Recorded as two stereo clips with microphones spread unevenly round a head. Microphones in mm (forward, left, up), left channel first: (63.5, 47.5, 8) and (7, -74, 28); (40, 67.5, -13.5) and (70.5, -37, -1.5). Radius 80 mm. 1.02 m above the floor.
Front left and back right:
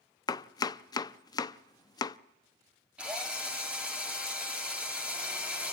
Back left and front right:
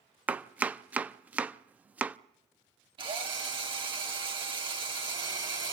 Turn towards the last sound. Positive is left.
turn(degrees=-30)